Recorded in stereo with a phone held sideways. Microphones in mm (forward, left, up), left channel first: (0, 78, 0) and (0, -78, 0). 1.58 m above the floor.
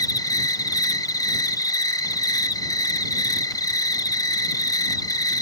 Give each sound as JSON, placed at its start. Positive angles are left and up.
{"t": 0.0, "sound": "an insect", "side_deg": 25}